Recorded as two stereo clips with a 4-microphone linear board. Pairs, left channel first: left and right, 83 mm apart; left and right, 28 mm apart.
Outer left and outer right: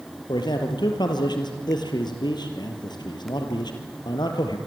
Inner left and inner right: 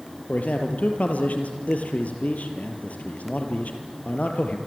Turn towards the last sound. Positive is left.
turn(degrees=60)  # may be behind; listen again after turning